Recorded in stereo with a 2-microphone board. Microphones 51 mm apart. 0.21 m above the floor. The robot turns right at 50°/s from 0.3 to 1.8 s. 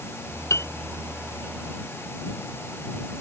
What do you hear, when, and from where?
0.5 s a piano: 75° left (ahead or behind); by 0.7 s 70° left (ahead or behind)